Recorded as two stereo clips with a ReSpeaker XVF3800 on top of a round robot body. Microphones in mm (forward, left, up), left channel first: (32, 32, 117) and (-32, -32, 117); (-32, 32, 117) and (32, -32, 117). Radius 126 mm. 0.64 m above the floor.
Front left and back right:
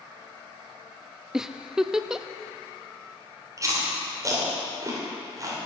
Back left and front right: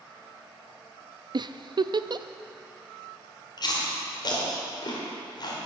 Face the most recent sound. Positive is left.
turn(degrees=175)